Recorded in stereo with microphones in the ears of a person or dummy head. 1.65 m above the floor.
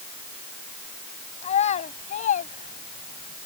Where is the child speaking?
35° left (ahead or behind); by 3.3 s 45° left (ahead or behind).